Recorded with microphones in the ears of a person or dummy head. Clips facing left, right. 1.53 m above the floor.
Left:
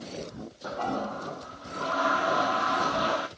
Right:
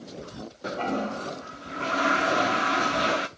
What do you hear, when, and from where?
0.6 s a toilet flushing: 25° right (ahead or behind), 0.5 m